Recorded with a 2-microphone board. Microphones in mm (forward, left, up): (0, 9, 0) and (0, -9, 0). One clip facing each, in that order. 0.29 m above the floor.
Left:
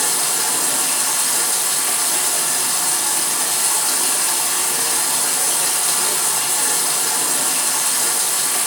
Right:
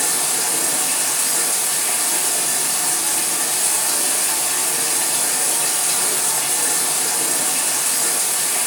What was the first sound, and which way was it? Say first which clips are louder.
Running water: left 1 dB; 55° left (ahead or behind).